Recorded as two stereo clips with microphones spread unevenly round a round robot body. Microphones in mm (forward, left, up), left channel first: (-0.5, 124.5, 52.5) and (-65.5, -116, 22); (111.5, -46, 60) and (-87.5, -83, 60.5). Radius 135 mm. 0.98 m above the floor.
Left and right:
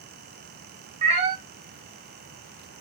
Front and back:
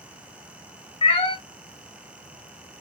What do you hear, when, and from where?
1.0 s a cat meowing: 40° right, 0.6 m